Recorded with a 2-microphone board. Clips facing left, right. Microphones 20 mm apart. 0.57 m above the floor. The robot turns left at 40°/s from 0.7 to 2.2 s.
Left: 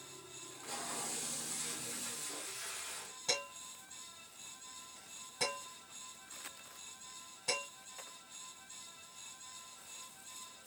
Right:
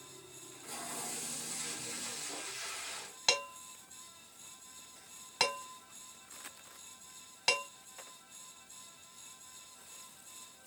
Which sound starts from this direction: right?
Dishes clattering, at 3.3 s.